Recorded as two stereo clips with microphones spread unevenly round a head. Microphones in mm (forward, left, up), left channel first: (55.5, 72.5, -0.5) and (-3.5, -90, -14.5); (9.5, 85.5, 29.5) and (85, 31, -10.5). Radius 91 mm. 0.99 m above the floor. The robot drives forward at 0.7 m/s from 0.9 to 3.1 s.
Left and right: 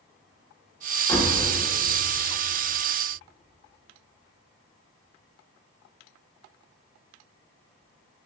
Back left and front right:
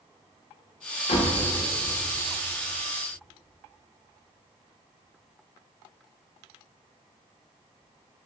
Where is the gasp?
I don't hear a gasp.